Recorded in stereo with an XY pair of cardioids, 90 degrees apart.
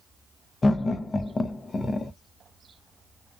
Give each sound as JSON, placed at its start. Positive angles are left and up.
{"t": 0.6, "sound": "laughter", "azimuth_deg": 35, "distance_m": 0.6}